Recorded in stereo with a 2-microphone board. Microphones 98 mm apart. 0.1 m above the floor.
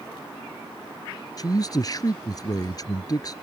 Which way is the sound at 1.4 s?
40° left (ahead or behind).